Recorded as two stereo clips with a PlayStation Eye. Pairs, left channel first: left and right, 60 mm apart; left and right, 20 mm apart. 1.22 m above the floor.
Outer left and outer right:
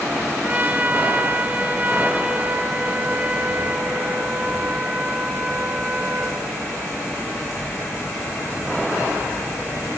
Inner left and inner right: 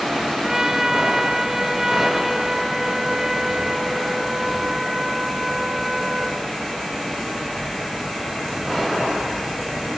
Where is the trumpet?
25° right (ahead or behind), 1.8 m.